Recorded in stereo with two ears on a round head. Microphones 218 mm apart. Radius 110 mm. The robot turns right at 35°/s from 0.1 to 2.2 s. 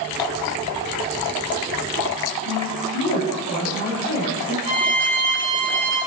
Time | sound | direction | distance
2.5 | a woman speaking | 65° left (ahead or behind) | 1.1 m
4.7 | a violin | 75° right (ahead or behind) | 1.1 m